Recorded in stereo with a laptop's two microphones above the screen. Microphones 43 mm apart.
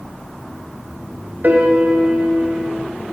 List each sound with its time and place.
1.4 s a piano: 45° right (ahead or behind), 0.6 m